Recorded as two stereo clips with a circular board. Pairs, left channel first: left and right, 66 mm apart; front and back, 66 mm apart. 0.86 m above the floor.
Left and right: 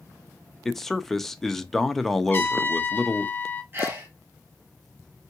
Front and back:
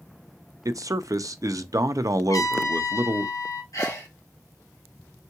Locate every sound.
0.7 s a man speaking: 175° left, 0.6 m
2.3 s a trumpet: 30° left, 0.7 m
3.7 s a sneeze: 35° right, 2.0 m